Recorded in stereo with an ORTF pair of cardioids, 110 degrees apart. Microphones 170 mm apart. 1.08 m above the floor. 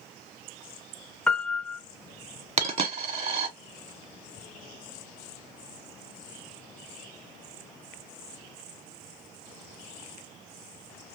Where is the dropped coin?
40° right, 1.1 m.